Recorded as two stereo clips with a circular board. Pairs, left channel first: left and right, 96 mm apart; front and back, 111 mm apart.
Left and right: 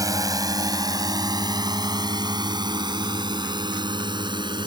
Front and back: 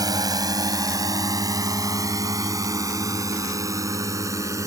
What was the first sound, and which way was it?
A drone, 135° right.